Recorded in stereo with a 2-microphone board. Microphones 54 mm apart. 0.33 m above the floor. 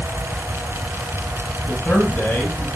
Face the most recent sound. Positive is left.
turn(degrees=40)  # may be behind; listen again after turning